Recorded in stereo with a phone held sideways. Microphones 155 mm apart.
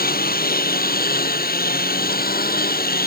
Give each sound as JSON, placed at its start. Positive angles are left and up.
{"t": 0.0, "sound": "a lawn mower", "side_deg": 85}